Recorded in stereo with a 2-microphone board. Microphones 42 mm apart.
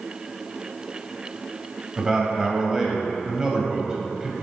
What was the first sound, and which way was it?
A man speaking, 15° right (ahead or behind).